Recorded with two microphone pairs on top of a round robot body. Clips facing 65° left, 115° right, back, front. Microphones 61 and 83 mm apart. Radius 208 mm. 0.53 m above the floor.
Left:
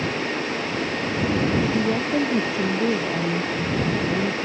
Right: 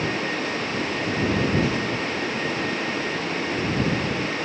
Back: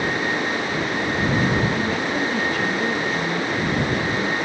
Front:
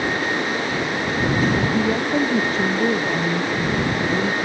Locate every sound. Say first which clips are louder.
1.7 s a woman speaking: left 4 dB, front 3 dB; 65° left